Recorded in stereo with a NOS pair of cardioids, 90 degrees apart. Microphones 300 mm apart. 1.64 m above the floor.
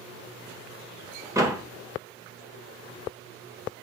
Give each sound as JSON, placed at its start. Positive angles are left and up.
{"t": 1.4, "sound": "a door slam", "azimuth_deg": -10, "distance_m": 1.6}